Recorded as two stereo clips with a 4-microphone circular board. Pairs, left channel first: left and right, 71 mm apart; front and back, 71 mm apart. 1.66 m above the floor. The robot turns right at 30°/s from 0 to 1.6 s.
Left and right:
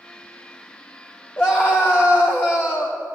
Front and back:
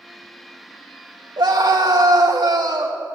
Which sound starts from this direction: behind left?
A scream, at 1.4 s.